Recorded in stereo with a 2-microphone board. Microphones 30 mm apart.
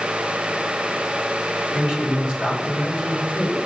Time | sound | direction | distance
1.7 | a man speaking | 25° right (ahead or behind) | 4 m